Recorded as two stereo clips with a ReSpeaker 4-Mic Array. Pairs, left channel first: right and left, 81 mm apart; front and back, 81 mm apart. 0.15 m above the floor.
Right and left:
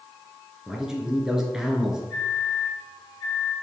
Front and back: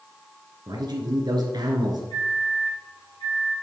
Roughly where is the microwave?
Ahead.